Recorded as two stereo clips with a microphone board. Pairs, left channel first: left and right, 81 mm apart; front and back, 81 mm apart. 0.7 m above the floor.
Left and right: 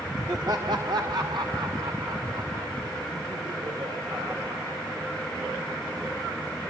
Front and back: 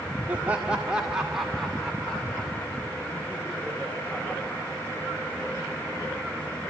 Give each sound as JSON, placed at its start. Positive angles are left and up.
{"t": 0.3, "sound": "laughter", "azimuth_deg": -110, "distance_m": 1.7}